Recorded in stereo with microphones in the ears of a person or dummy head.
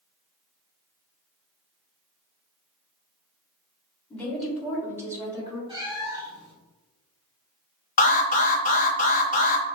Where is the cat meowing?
25° right (ahead or behind), 2.0 m.